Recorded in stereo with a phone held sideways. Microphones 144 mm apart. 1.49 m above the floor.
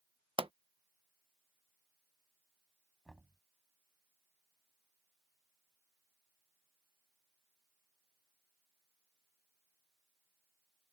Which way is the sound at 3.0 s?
Centre (ahead or behind).